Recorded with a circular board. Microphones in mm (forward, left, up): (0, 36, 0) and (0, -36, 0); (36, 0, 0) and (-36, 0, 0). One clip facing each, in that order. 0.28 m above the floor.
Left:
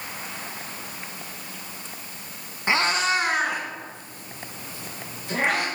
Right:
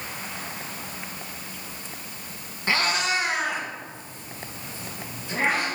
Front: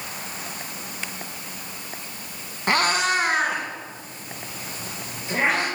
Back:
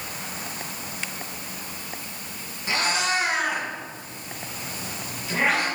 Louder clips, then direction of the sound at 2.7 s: Left 2 dB, front 4 dB; 20° left.